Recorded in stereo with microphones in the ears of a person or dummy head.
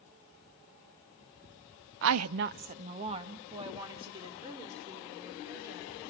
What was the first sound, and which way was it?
A woman speaking, 65° right (ahead or behind).